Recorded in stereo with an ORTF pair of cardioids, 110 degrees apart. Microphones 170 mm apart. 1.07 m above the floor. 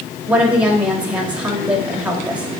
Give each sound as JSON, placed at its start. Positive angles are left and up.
{"t": 0.3, "sound": "a woman speaking", "azimuth_deg": -5, "distance_m": 1.8}